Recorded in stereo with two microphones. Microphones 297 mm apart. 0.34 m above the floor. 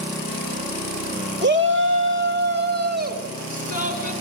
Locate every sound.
1.4 s a shout: 35° right (ahead or behind), 1.8 m; by 4.1 s 25° right (ahead or behind), 4.5 m